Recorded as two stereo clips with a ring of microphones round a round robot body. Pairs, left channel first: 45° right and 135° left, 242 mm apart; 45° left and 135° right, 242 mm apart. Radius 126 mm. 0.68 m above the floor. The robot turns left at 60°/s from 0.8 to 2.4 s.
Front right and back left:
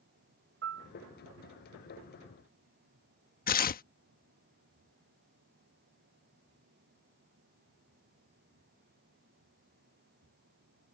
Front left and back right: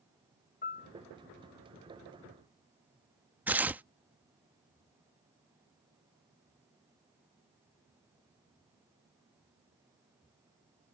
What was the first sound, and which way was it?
A piano, 100° left.